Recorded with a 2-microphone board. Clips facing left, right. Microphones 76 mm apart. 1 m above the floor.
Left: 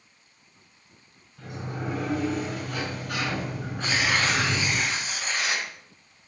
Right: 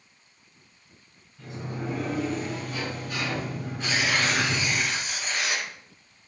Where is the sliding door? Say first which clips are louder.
Even; 85° left, 4 m.